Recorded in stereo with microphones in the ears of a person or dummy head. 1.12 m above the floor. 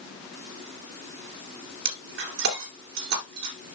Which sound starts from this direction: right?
Breaking glass, at 1.9 s.